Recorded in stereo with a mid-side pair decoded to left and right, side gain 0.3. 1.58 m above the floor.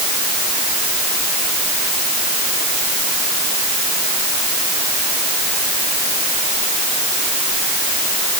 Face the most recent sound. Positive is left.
No sound to turn to.